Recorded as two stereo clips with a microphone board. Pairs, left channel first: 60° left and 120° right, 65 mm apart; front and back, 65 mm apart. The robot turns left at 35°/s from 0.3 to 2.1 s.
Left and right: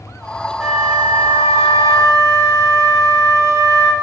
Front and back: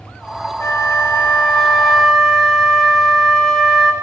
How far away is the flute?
About 0.9 m.